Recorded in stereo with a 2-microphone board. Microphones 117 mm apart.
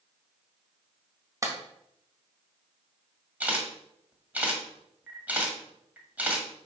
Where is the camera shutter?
15° right (ahead or behind), 1.8 m.